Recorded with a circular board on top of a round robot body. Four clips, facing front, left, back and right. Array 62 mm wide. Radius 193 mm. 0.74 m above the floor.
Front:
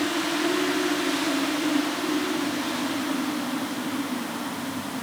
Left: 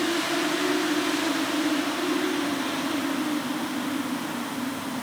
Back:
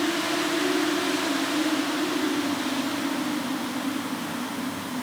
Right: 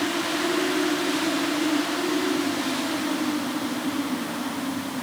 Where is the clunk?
I don't hear a clunk.